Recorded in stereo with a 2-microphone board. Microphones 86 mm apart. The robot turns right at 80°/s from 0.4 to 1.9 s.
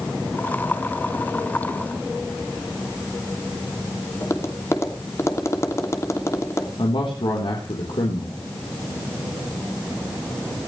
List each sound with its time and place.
4.2 s tapping: 35° left (ahead or behind), 2.5 m
6.8 s a man speaking: 75° left (ahead or behind), 4 m